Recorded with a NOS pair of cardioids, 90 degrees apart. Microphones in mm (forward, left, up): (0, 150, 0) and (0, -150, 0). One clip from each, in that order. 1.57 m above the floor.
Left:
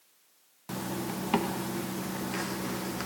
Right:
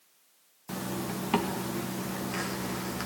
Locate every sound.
0.7 s a zipper: straight ahead, 1.4 m